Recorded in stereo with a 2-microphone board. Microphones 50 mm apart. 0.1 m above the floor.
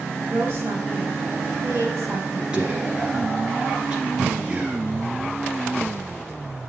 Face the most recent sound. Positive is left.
turn(degrees=-20)  # may be behind; listen again after turning